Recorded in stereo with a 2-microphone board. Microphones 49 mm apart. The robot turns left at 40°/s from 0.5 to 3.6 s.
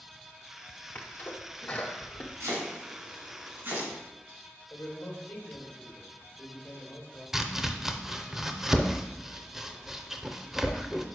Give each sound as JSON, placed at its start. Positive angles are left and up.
{"t": 0.9, "sound": "a sneeze", "side_deg": 30, "distance_m": 0.8}
{"t": 2.4, "sound": "chopping", "side_deg": -75, "distance_m": 2.5}
{"t": 4.7, "sound": "a man speaking", "side_deg": 30, "distance_m": 2.5}
{"t": 7.3, "sound": "chopping", "side_deg": -5, "distance_m": 0.5}